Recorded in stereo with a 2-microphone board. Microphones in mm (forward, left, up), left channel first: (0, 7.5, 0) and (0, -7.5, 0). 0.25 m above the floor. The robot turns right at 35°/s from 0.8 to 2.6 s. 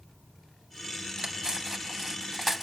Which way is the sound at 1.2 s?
35° right (ahead or behind).